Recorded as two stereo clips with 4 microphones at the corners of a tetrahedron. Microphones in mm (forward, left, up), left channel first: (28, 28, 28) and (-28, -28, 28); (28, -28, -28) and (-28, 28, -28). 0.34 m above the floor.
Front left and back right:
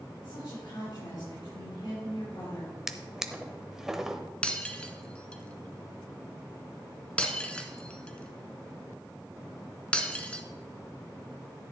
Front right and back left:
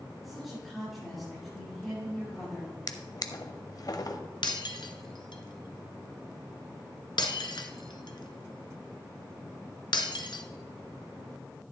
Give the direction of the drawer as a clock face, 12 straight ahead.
2 o'clock.